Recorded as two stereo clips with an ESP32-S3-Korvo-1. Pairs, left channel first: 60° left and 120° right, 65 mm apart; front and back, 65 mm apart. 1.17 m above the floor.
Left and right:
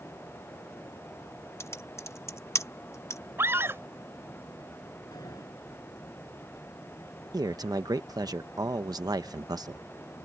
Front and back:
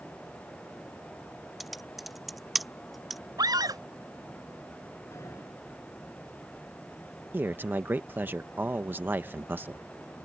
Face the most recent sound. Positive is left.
turn(degrees=-120)